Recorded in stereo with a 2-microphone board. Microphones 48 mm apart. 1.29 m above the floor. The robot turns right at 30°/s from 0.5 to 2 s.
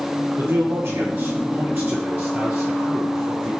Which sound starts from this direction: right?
A man speaking, at 0.4 s.